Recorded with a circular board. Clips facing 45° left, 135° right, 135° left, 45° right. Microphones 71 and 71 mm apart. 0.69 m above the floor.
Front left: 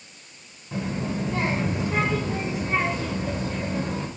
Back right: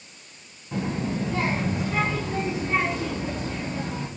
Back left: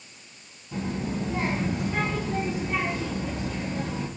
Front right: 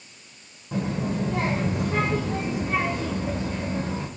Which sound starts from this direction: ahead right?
A child speaking, at 0.7 s.